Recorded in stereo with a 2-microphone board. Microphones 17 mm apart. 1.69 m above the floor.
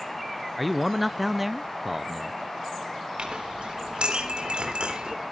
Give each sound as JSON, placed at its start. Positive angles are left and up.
{"t": 0.6, "sound": "a man speaking", "side_deg": -5, "distance_m": 0.6}
{"t": 3.2, "sound": "a clink", "side_deg": -70, "distance_m": 3.5}